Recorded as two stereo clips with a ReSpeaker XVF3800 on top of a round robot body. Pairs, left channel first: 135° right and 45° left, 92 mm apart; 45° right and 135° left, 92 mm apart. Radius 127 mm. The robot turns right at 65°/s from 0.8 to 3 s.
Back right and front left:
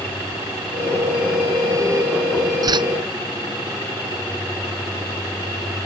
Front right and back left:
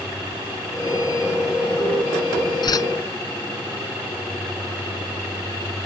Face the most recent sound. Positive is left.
turn(degrees=20)